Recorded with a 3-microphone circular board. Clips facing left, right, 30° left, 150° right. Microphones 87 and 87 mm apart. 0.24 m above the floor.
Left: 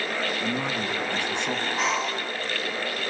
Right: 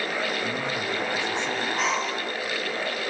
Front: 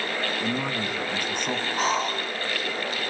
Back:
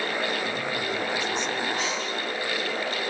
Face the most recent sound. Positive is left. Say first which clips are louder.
# even, front 4 dB
turn(degrees=0)